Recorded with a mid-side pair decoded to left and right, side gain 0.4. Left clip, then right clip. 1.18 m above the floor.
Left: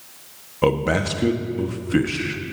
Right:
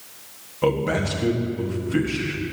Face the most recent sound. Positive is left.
turn(degrees=45)